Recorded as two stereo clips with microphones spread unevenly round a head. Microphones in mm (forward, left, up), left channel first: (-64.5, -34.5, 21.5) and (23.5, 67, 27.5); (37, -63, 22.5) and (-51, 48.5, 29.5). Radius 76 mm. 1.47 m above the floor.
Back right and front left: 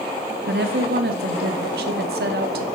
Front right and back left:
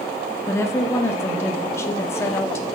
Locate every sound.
0.5 s a woman speaking: 20° left, 0.7 m